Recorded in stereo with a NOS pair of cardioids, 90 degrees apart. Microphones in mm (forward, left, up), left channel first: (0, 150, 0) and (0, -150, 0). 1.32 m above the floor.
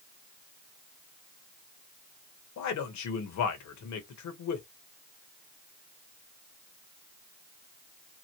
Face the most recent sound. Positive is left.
turn(degrees=70)